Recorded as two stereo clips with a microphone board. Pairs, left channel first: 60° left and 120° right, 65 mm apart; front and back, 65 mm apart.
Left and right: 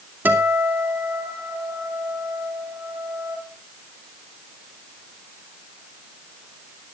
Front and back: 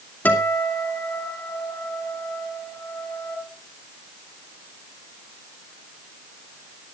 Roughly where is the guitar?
Ahead right.